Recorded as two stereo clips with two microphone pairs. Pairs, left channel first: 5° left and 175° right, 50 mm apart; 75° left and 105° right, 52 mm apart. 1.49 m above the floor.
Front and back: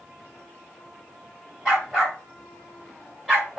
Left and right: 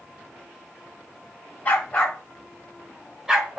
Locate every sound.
1.6 s a dog barking: 100° left, 1.6 m; by 3.6 s 120° right, 1.3 m